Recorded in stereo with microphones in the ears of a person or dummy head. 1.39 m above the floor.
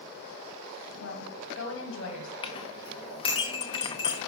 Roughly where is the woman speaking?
Left.